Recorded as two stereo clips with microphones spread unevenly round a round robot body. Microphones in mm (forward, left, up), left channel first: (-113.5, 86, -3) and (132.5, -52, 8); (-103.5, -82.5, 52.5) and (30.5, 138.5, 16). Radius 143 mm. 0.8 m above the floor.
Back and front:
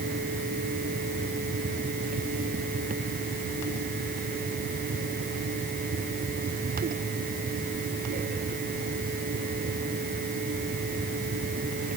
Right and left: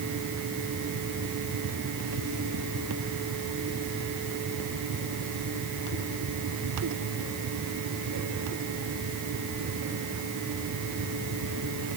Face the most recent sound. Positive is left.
No sound to turn to.